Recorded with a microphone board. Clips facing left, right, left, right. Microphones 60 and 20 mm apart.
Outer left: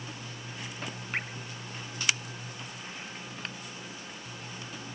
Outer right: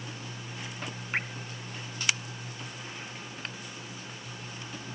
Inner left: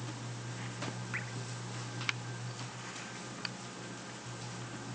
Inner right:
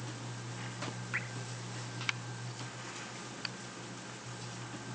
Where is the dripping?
10° right (ahead or behind), 2.5 m.